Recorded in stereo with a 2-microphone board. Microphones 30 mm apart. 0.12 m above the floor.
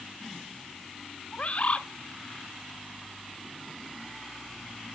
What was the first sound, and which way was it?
A bird, 40° left (ahead or behind).